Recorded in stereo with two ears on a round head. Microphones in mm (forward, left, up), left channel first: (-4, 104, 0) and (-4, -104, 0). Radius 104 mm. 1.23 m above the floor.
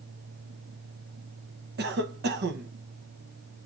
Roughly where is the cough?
Right.